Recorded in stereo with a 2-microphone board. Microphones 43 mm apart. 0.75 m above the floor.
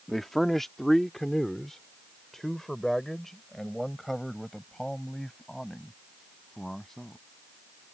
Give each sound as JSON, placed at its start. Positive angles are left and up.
{"t": 0.1, "sound": "a man speaking", "side_deg": 5}